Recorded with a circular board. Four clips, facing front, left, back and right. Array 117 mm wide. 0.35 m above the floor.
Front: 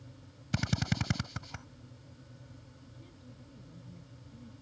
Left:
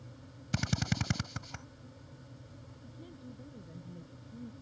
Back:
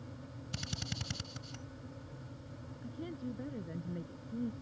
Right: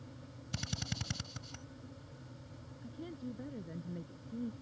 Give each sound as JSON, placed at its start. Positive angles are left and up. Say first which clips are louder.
{"t": 0.5, "sound": "a drill", "louder": "left 9 dB, front 11 dB", "azimuth_deg": 35}
{"t": 2.8, "sound": "a woman speaking", "louder": "right 7 dB, back 17 dB", "azimuth_deg": -155}